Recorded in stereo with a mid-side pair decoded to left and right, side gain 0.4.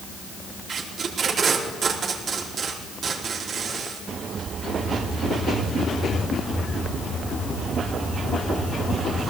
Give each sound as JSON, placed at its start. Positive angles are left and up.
{"t": 0.7, "sound": "tape being pulled", "azimuth_deg": -55, "distance_m": 4.5}